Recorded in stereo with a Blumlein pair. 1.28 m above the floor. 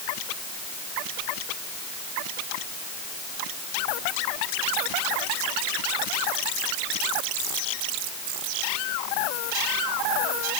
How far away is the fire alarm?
I don't hear a fire alarm.